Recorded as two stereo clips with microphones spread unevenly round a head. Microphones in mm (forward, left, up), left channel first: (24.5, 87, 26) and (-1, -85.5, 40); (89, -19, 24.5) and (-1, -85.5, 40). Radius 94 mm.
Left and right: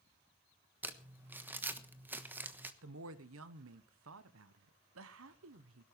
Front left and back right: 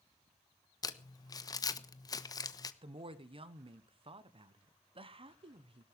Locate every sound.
0.8 s crumpling: 20° right, 1.1 m
2.8 s a woman speaking: 105° right, 1.0 m